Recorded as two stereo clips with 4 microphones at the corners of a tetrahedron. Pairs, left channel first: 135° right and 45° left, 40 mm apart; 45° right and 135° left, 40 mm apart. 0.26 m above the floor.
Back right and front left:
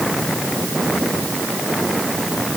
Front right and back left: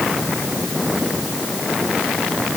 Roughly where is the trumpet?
No trumpet in this recording.